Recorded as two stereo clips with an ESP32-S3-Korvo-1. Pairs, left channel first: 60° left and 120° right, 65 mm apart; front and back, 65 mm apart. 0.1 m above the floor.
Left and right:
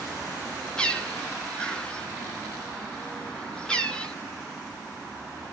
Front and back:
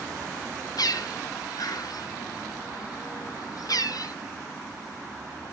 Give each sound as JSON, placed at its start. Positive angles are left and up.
{"t": 0.8, "sound": "a bird", "azimuth_deg": -15, "distance_m": 0.8}